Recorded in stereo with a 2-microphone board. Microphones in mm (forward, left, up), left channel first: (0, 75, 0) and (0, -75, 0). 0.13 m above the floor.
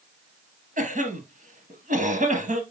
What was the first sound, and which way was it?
A cough, 60° right (ahead or behind).